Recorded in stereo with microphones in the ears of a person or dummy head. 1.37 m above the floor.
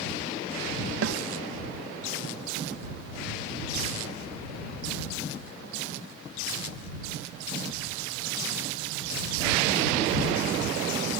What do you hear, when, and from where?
1.0 s a snare drum: 65° right (ahead or behind)